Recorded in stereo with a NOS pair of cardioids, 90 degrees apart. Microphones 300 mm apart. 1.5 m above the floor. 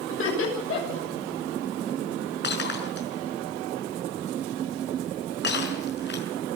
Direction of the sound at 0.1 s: 45° left.